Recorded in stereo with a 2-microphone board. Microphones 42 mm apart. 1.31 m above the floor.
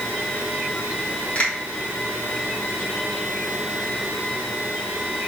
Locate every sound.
1.4 s a finger snap: 35° left (ahead or behind), 2 m